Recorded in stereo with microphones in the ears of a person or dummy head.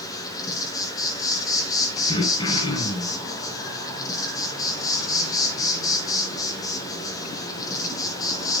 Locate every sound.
0.0 s an insect: 15° left (ahead or behind), 3.5 m
2.1 s throat clearing: 25° left (ahead or behind), 4 m